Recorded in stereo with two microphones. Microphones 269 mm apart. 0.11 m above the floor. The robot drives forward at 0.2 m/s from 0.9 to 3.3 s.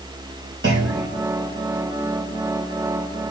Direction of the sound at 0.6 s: 50° right (ahead or behind).